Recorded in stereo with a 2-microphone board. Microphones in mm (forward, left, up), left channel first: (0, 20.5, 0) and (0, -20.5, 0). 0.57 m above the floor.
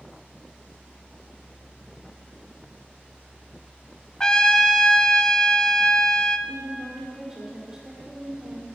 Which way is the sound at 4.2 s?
20° left (ahead or behind).